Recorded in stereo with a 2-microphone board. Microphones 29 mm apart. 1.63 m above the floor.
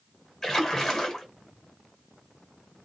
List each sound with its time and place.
0.4 s a splash: 15° left (ahead or behind), 1.7 m